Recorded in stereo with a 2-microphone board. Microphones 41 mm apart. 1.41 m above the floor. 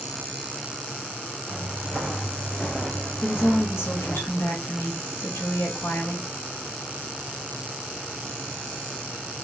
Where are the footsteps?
5° left (ahead or behind), 1.7 m; by 4.2 s 35° left (ahead or behind), 1.7 m.